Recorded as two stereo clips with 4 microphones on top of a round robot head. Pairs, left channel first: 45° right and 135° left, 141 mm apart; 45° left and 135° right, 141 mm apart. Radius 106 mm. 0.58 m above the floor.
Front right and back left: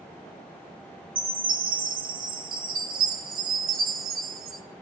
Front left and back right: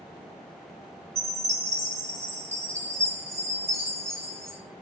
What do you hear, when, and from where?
1.1 s a chime: 150° left, 2.5 m